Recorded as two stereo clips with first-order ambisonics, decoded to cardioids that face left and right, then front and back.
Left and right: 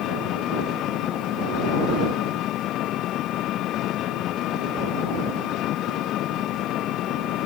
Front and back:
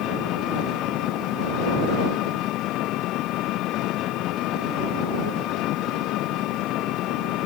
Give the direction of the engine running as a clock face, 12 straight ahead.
11 o'clock.